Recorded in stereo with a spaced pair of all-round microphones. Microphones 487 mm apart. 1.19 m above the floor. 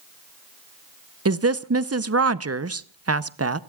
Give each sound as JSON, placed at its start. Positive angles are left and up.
{"t": 1.2, "sound": "a woman speaking", "side_deg": -30, "distance_m": 0.7}